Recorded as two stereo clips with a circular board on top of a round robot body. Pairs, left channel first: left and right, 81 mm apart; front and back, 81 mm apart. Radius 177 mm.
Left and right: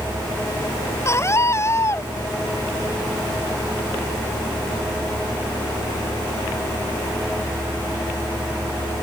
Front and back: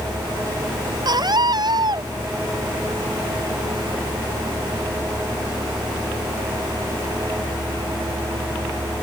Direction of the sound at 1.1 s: 145° left.